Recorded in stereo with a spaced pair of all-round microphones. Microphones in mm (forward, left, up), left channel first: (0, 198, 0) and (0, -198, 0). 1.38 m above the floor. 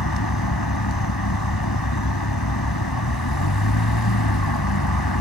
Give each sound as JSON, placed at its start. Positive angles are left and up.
{"t": 0.0, "sound": "a vehicle", "side_deg": 70}